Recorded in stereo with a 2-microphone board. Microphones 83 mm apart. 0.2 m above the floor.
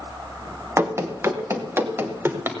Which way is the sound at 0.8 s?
35° right (ahead or behind).